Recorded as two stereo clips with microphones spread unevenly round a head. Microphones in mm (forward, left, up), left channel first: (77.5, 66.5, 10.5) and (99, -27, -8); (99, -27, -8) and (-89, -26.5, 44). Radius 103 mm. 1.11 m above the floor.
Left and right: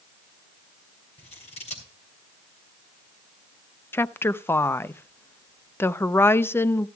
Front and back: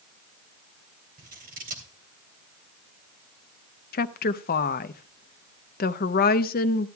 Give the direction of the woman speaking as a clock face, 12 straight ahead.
11 o'clock.